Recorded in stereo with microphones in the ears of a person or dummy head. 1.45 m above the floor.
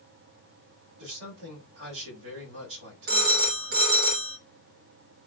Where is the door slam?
I don't hear a door slam.